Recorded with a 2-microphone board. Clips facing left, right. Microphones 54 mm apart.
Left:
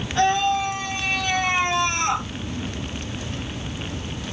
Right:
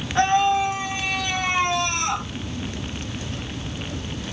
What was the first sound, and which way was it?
A scream, 25° right (ahead or behind).